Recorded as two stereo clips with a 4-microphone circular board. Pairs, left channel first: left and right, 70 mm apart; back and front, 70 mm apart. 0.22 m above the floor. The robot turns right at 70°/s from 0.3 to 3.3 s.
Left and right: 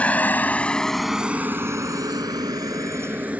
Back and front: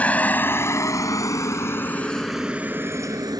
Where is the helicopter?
135° left; by 3.4 s 20° right.